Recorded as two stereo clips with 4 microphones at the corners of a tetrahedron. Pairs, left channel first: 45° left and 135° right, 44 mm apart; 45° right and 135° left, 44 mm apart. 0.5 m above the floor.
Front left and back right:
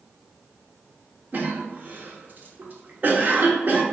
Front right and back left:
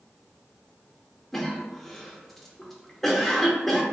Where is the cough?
125° right, 0.9 m.